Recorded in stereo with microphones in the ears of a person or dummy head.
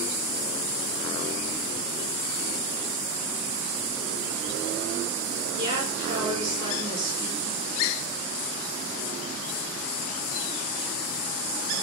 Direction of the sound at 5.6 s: 30° right (ahead or behind).